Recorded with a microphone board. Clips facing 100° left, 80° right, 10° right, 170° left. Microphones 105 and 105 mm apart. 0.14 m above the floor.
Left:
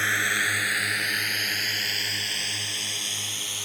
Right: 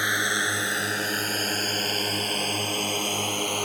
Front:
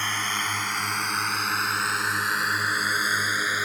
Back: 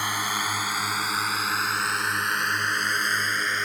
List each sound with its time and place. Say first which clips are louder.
0.0 s a drone: right 1 dB, back 1 dB; 130° right; by 3.6 s 90° right